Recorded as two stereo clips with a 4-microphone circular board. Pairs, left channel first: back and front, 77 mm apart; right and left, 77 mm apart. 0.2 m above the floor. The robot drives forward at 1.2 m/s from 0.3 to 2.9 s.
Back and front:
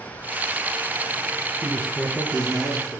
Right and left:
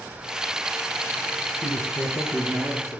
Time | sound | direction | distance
1.6 | a man speaking | 100° right | 2.5 m